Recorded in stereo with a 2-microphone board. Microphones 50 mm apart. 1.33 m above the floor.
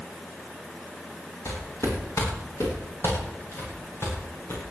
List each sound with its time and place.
1.4 s footsteps: 55° left (ahead or behind), 10 m; by 4.6 s 45° left (ahead or behind), 10.5 m